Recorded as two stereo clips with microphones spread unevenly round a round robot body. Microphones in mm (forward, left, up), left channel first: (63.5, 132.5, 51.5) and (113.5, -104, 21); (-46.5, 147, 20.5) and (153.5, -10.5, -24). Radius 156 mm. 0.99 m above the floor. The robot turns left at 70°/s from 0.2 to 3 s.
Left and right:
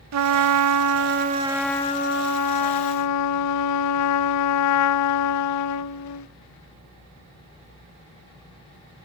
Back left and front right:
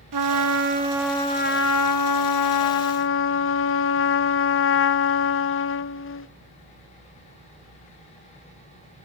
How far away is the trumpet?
About 0.7 m.